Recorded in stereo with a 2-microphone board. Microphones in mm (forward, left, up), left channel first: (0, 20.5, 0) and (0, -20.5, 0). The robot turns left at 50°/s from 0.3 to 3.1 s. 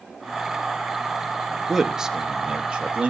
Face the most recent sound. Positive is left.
turn(degrees=-25)  # may be behind; listen again after turning